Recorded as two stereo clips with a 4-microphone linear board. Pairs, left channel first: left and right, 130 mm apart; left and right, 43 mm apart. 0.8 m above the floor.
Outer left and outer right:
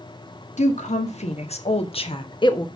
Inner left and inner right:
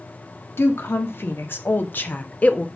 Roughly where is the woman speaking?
Left.